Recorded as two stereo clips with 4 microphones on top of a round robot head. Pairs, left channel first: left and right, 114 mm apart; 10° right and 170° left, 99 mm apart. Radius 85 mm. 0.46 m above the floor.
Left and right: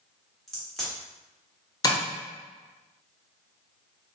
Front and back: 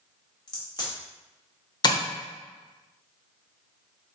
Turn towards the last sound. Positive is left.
turn(degrees=30)